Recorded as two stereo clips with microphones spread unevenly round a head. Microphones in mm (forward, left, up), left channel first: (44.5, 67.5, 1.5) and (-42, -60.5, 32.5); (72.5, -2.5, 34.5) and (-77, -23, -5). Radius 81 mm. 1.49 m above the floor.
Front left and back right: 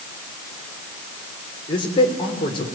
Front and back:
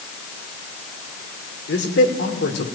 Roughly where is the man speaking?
Ahead.